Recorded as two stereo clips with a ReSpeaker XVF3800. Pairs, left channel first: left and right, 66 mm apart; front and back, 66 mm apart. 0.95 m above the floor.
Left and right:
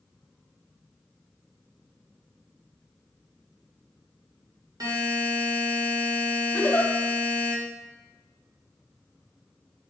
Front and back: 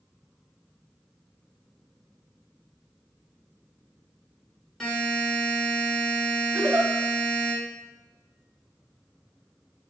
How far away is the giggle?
About 2.5 m.